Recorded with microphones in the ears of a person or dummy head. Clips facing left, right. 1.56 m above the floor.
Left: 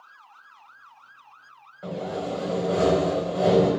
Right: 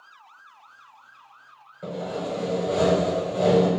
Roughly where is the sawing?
Right.